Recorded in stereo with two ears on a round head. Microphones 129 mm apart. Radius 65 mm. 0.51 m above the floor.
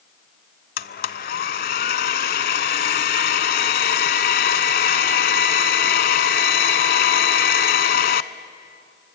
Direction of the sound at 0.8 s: 65° left (ahead or behind).